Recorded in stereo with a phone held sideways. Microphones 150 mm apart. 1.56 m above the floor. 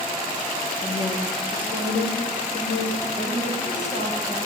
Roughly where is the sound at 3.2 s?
Left.